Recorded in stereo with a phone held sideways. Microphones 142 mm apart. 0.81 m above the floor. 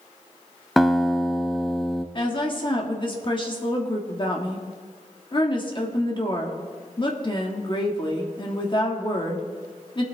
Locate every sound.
0.8 s a guitar: centre (ahead or behind), 0.8 m
2.1 s a woman speaking: 35° left (ahead or behind), 1.6 m